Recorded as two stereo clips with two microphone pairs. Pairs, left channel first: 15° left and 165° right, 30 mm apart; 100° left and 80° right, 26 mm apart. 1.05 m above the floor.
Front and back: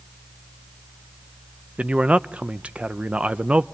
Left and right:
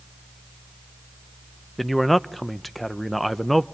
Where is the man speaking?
170° right, 0.6 m.